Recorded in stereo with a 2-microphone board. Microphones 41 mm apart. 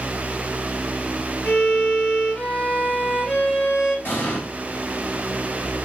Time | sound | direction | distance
1.4 | a violin | 35° left (ahead or behind) | 1.6 m
4.0 | an explosion | 60° left (ahead or behind) | 1.7 m